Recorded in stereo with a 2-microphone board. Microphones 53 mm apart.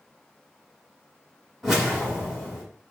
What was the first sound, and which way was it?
A whoosh, centre (ahead or behind).